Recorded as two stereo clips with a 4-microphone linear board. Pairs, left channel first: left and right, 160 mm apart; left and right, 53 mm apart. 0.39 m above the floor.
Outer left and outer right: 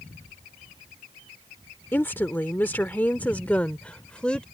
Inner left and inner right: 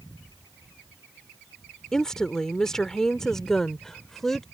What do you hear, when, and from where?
1.9 s a woman speaking: 15° left (ahead or behind); by 4.4 s 5° left (ahead or behind)